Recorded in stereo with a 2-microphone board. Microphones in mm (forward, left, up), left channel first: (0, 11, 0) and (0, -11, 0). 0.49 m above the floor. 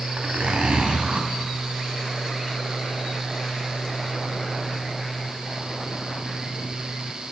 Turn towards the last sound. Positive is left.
turn(degrees=-75)  # may be behind; listen again after turning